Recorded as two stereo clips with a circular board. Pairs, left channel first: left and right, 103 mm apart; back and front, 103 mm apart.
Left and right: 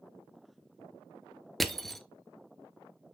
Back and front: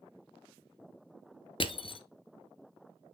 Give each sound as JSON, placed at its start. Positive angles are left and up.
{"t": 1.6, "sound": "crushing", "azimuth_deg": 175, "distance_m": 0.6}